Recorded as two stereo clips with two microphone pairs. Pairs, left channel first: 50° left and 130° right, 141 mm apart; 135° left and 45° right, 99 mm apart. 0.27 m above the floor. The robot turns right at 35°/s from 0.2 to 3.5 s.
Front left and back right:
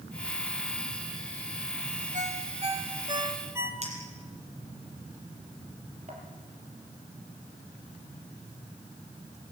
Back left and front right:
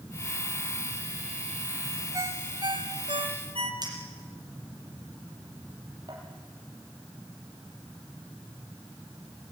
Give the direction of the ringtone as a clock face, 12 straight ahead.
4 o'clock.